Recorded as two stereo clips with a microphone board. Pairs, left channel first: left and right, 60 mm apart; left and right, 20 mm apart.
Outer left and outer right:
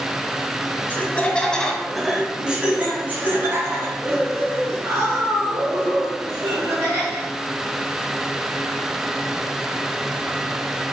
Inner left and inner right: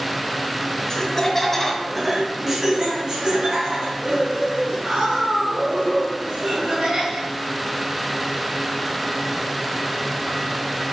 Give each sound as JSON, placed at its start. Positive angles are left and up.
{"t": 0.9, "sound": "laughter", "side_deg": 30, "distance_m": 1.3}